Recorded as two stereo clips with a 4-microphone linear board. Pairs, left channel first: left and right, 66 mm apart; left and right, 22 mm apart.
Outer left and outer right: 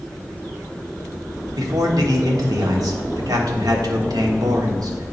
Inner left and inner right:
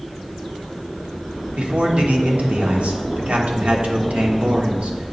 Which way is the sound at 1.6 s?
70° right (ahead or behind).